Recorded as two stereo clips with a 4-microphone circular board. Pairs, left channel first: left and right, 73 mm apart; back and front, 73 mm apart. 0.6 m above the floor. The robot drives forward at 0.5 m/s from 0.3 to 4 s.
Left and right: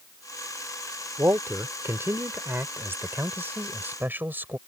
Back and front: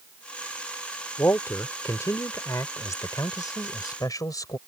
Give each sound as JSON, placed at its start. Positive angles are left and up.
{"t": 1.2, "sound": "a man speaking", "azimuth_deg": -130}